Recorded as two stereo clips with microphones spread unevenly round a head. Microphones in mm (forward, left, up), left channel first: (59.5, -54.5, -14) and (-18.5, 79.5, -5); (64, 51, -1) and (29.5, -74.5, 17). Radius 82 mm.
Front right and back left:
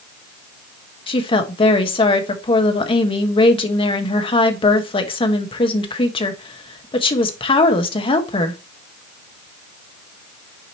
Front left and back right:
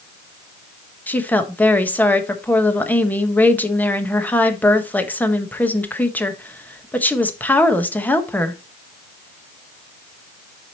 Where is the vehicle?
No vehicle in this recording.